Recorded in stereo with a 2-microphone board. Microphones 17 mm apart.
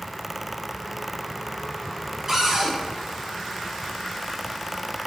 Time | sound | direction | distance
2.3 | a cupboard door | 25° right (ahead or behind) | 1.1 m